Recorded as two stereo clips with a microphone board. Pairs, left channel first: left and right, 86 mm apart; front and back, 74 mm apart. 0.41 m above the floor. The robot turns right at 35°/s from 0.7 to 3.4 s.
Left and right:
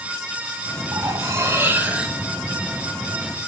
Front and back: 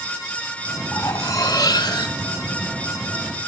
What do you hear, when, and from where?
0.9 s cutlery clinking: 50° right, 1.9 m; by 2.2 s 5° right, 1.9 m